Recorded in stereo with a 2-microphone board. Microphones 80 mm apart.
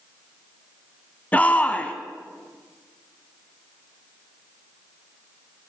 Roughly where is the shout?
Centre.